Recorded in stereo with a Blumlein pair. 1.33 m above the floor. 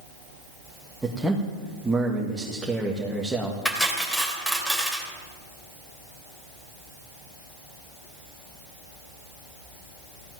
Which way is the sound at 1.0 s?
5° right.